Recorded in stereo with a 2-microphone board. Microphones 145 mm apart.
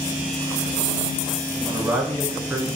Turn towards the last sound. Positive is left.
turn(degrees=-15)  # may be behind; listen again after turning